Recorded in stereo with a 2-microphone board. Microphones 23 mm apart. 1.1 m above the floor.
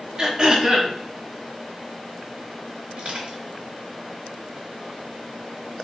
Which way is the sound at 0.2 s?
30° right (ahead or behind).